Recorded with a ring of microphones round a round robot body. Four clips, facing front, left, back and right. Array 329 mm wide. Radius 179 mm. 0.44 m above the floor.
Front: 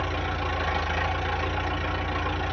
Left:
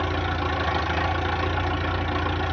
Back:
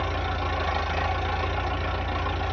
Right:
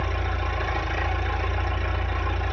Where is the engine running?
95° left, 1.6 m.